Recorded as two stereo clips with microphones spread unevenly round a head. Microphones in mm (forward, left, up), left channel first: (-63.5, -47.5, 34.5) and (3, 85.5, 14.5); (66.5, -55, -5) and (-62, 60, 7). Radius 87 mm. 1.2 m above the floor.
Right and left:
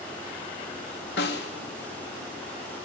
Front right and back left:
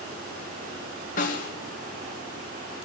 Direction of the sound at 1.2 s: 85° right.